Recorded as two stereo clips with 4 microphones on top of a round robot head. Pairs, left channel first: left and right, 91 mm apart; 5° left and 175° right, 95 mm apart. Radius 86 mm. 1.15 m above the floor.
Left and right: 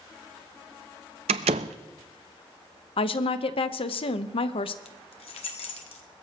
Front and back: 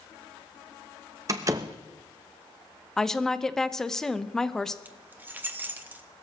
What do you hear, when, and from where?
1.3 s a door slam: 110° right, 0.5 m
3.0 s a woman speaking: 90° left, 1.0 m
4.8 s keys jangling: 115° left, 1.4 m